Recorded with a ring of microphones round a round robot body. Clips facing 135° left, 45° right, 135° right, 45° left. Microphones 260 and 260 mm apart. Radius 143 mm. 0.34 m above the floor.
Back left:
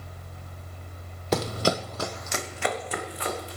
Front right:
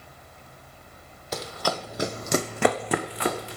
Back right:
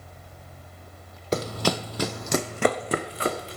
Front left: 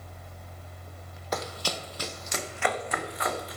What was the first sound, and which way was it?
Running footsteps, 165° left.